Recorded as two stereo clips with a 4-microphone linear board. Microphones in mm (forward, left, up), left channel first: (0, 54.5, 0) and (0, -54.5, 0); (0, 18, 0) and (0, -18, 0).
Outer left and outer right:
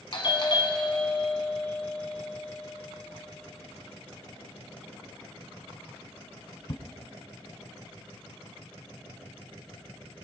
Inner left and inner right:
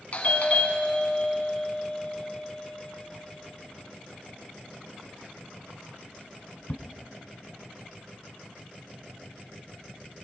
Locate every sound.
0.1 s a doorbell: 45° left (ahead or behind), 1.2 m